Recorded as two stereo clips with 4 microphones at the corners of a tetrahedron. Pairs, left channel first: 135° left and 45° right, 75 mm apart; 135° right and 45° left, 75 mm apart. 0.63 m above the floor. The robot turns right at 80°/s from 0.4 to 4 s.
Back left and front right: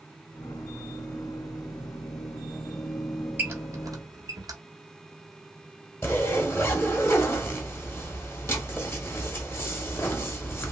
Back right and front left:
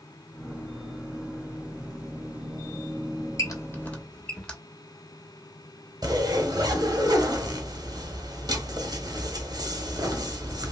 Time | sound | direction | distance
3.4 | a squeak | 105° right | 0.7 m
6.0 | a zipper | 75° left | 0.8 m